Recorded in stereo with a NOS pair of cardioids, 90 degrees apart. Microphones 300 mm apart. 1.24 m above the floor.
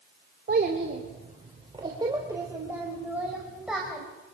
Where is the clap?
I don't hear a clap.